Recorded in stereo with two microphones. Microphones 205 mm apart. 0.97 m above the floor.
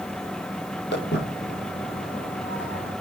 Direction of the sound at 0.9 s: 60° left (ahead or behind).